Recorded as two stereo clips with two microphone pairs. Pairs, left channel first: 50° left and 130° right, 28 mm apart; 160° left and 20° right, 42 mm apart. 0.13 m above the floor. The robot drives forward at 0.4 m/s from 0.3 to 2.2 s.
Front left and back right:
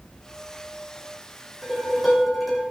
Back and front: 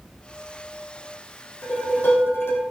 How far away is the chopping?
No chopping in this recording.